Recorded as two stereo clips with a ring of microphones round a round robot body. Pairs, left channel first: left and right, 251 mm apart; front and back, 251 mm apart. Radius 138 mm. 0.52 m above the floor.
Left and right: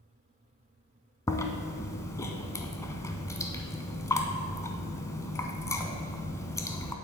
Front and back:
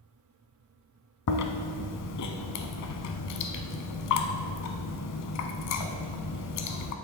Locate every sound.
1.3 s chewing: 10° left, 0.8 m